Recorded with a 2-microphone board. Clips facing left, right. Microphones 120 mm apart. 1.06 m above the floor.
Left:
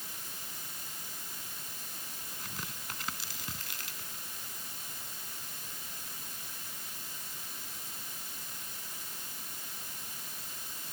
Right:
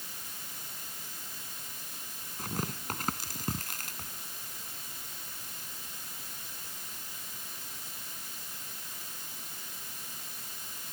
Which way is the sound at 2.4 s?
45° right (ahead or behind).